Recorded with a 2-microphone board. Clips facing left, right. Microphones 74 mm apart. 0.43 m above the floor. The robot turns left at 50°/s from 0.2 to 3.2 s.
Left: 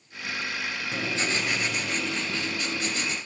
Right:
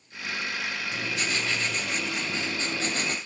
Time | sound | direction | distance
0.9 | writing | 50° left | 2.5 m